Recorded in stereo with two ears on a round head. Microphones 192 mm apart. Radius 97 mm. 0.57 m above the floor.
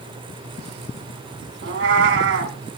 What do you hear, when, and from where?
1.6 s a cat meowing: 65° right (ahead or behind), 2 m